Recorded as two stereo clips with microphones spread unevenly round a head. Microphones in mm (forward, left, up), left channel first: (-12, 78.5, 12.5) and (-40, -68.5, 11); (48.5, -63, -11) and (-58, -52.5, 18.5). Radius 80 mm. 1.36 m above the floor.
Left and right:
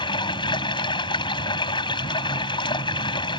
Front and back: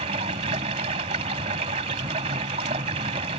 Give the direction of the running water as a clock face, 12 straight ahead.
7 o'clock.